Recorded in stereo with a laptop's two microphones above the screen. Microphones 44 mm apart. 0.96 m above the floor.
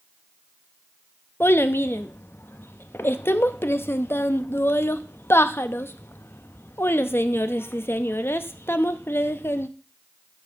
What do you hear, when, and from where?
1.4 s a child speaking: 70° left (ahead or behind), 0.6 m